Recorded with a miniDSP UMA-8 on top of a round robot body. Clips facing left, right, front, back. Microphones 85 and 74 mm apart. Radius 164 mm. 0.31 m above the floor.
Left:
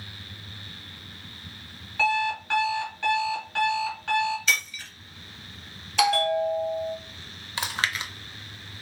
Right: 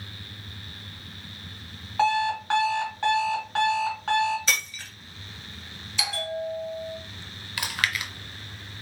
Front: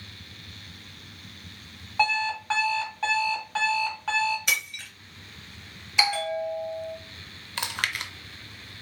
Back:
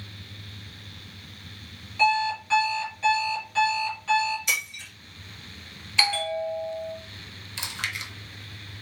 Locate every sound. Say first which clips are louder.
2.0 s an alarm clock: right 2 dB, back 3 dB; 40° right, 1.7 m
4.5 s breaking glass: left 2 dB, front 1 dB; 40° right, 1.6 m
6.0 s a bell: left 9 dB, even; 75° left, 0.6 m
7.6 s chewing: even, front 3 dB; 30° left, 0.6 m